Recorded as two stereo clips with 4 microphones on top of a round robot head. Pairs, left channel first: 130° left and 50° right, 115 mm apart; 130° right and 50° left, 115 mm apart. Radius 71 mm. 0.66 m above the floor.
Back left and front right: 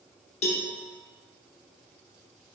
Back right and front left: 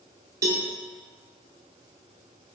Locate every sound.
0.4 s a cowbell: 110° left, 0.6 m